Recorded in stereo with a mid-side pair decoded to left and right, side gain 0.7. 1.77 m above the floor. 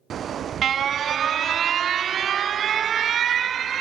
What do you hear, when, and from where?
0.1 s an alarm: 35° right, 0.6 m